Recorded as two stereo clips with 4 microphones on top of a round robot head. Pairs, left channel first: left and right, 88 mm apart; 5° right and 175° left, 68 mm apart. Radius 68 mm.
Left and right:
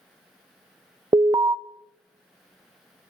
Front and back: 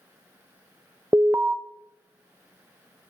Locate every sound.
1.1 s an alarm: 125° right, 0.5 m